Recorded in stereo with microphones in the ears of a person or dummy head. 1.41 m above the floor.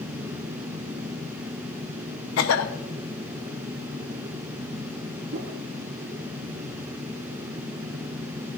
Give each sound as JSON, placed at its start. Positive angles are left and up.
{"t": 2.4, "sound": "a cough", "side_deg": 70, "distance_m": 1.0}
{"t": 5.3, "sound": "a whoosh", "side_deg": -50, "distance_m": 1.3}